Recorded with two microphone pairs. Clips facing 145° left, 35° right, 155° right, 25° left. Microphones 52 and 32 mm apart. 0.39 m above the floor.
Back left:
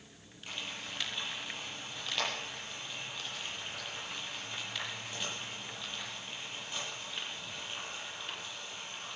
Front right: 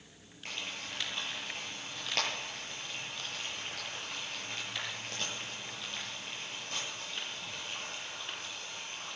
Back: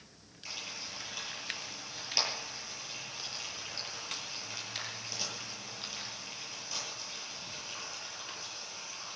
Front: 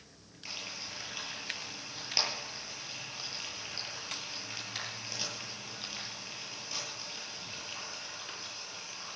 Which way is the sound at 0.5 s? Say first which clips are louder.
Front right 1 dB, even; 50° right.